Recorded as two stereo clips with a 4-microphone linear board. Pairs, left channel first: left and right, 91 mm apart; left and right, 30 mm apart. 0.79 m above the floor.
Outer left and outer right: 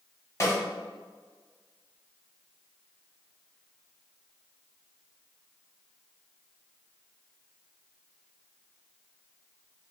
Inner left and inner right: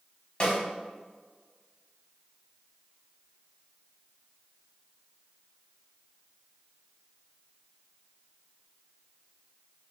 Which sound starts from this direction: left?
A snare drum, at 0.4 s.